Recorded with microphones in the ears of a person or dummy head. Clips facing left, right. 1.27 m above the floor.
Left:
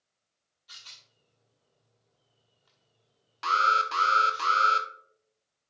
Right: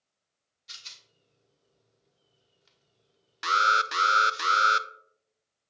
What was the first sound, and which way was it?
A rattle, 35° right (ahead or behind).